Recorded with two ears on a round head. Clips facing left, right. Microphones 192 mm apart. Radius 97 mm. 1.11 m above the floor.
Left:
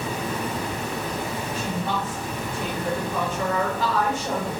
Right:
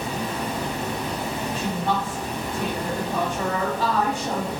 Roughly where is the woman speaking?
Right.